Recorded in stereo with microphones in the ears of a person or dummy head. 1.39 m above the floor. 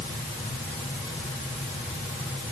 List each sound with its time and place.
Only background noise.